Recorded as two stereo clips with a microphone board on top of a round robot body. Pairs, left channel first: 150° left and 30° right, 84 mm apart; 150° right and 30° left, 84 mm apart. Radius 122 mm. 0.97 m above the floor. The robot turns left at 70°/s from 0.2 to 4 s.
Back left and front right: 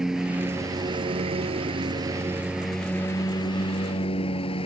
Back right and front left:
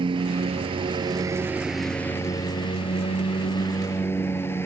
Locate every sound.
0.0 s a lawn mower: 55° left; by 4.7 s 145° left